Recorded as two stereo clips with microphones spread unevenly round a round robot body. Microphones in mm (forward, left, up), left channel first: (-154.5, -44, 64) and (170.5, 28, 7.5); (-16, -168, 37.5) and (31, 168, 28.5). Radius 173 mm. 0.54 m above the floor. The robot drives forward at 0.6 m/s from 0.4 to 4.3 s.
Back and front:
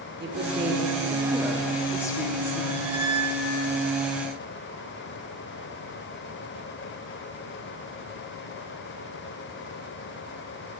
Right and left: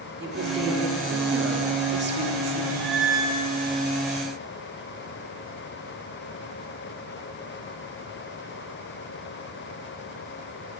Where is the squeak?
60° left, 1.8 m; by 3.5 s 80° left, 1.6 m.